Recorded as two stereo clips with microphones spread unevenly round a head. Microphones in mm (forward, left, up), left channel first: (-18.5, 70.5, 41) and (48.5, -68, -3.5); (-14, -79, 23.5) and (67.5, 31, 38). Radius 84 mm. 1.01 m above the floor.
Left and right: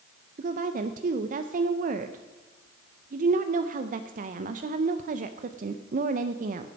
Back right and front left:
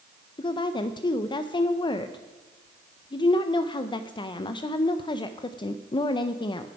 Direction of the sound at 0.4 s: 75° right.